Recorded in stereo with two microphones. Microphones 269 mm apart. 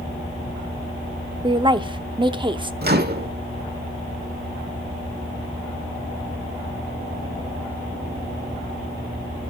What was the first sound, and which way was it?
A woman speaking, 20° right (ahead or behind).